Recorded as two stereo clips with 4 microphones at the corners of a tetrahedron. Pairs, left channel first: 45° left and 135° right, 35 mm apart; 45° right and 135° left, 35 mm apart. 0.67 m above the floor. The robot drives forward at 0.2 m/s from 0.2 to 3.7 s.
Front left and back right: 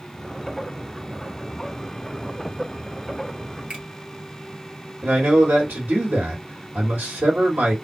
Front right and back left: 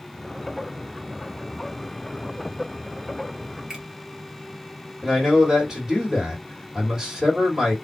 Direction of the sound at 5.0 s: 150° right.